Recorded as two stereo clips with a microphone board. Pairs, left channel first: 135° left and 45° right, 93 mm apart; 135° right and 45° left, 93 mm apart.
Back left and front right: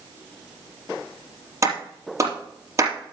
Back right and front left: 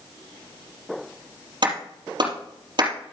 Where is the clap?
10° left, 4 m.